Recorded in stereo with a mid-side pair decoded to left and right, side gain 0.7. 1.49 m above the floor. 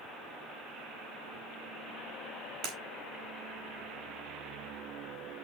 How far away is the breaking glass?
About 4 m.